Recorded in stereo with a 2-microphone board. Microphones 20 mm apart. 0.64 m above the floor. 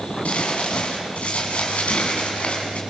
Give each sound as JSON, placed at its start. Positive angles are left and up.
{"t": 0.2, "sound": "crumpling", "side_deg": 80, "distance_m": 6.5}